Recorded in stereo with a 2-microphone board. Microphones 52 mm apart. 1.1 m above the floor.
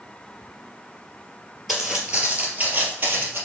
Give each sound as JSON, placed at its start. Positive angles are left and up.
{"t": 1.7, "sound": "footsteps", "side_deg": -10, "distance_m": 1.5}